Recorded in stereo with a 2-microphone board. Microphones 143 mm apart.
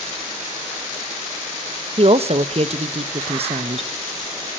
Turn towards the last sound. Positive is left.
turn(degrees=-45)  # may be behind; listen again after turning